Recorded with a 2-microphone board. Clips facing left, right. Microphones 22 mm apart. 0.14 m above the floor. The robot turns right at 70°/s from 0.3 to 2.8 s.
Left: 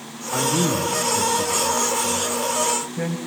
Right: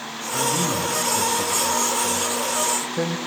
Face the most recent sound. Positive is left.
turn(degrees=-60)  # may be behind; listen again after turning